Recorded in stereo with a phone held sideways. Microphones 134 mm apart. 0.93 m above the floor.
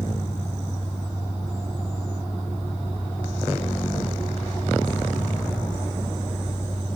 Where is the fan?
10° left (ahead or behind).